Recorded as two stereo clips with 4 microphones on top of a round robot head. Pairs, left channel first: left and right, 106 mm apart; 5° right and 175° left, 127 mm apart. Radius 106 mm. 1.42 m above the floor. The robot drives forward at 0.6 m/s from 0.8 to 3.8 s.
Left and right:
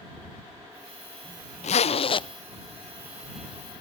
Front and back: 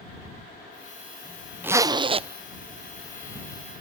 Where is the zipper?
100° left, 0.5 m; by 2.3 s 135° left, 0.7 m.